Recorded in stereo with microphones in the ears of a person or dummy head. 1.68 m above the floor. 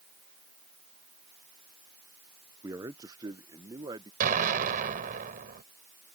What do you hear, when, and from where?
2.6 s a man speaking: 15° right (ahead or behind); by 4.1 s 20° right (ahead or behind)
4.2 s an explosion: 45° right (ahead or behind)